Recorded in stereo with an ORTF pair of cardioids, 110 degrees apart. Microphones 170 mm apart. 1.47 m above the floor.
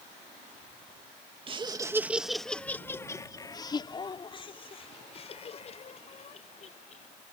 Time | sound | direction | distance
1.5 | laughter | 30° right | ?